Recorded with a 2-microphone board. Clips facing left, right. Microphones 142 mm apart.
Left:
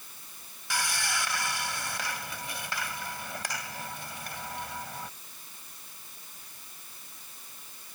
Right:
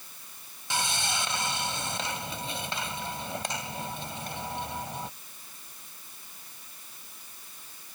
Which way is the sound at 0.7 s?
25° right (ahead or behind).